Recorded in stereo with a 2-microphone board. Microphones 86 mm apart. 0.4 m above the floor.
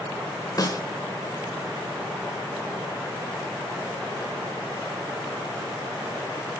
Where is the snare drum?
45° left (ahead or behind), 1.9 m.